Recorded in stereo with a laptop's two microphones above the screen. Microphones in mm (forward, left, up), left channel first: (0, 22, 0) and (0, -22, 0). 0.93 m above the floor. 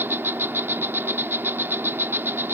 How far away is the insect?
About 0.8 m.